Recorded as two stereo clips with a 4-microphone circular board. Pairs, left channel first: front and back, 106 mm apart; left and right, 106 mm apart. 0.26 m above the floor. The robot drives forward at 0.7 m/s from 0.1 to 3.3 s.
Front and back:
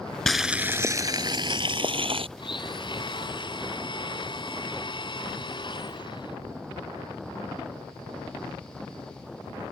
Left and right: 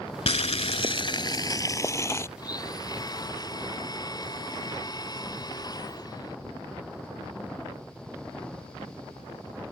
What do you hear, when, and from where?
0.3 s boiling: 85° left; by 2.3 s 155° left
2.4 s a blender: 40° left